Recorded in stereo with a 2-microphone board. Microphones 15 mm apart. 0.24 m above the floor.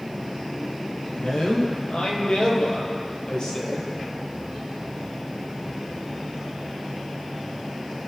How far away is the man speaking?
About 7 m.